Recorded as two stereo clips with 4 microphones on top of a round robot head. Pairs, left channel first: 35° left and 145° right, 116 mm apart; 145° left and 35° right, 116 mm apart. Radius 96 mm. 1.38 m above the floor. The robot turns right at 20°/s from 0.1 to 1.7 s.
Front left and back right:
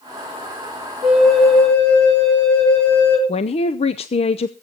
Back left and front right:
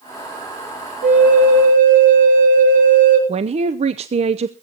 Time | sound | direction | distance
1.0 | a flute | 60° right | 4.5 m
3.3 | a man speaking | straight ahead | 0.6 m